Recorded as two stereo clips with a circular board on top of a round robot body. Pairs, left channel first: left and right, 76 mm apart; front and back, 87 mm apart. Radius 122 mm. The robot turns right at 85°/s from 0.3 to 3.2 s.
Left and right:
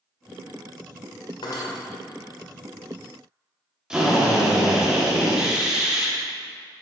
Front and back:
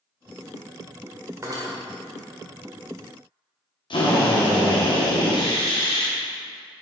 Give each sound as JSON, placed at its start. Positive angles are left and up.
{"t": 1.4, "sound": "cutlery clinking", "azimuth_deg": 120, "distance_m": 1.6}
{"t": 3.9, "sound": "a drill", "azimuth_deg": -10, "distance_m": 2.5}